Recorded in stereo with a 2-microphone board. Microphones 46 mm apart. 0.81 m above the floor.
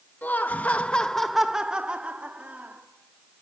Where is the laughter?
40° left (ahead or behind), 1.3 m; by 2.8 s 35° right (ahead or behind), 2 m.